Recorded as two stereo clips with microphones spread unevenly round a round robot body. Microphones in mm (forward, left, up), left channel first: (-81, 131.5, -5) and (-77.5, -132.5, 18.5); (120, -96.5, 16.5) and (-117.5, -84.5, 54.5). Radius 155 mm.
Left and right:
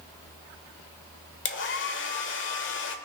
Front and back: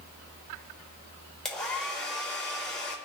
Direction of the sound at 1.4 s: 75° left.